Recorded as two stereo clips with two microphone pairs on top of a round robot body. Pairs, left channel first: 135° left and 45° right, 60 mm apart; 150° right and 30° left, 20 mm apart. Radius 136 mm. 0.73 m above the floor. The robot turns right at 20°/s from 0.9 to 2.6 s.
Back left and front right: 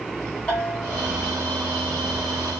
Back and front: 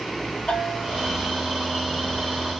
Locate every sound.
0.5 s a bell: 160° right, 2 m